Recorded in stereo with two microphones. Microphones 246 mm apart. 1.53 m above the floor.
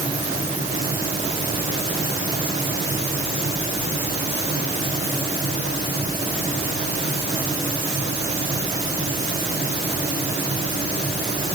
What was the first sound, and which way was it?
Only background noise.